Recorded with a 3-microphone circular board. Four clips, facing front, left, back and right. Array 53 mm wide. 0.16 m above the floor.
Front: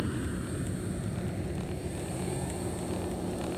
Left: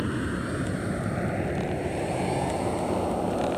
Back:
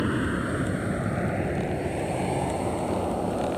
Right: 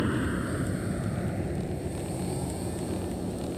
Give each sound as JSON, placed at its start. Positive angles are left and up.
{"t": 0.0, "sound": "an aircraft", "azimuth_deg": -165}